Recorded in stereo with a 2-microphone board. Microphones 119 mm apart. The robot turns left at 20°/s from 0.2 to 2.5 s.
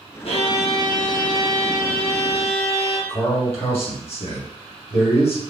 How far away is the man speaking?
About 1.4 m.